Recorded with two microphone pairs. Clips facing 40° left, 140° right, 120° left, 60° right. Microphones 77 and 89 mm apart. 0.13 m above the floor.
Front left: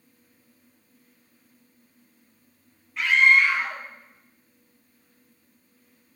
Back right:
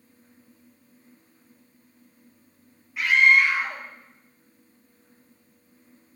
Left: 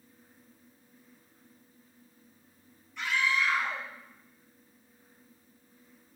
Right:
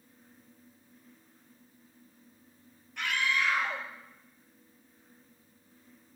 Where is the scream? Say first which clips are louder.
Even, left 1 dB; 55° right, 2.5 m.